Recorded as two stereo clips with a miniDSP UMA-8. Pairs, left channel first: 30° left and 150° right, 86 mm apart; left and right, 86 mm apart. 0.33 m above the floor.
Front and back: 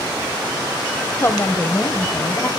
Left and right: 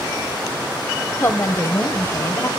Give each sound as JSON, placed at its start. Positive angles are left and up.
{"t": 1.2, "sound": "a woman speaking", "azimuth_deg": 65, "distance_m": 1.1}